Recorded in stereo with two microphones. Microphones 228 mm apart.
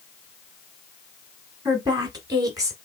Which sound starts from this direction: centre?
A woman speaking, at 1.6 s.